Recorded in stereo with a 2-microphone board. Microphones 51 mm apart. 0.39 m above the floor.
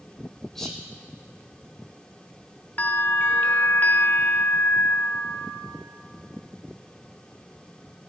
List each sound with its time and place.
0.6 s whispering: 5° left (ahead or behind), 1.8 m
2.8 s a bell: 40° left (ahead or behind), 1.1 m